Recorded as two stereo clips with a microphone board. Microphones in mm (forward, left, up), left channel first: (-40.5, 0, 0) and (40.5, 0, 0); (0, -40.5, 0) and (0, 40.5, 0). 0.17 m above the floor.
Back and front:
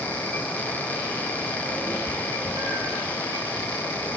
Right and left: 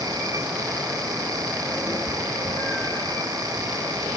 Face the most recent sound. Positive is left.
turn(degrees=-55)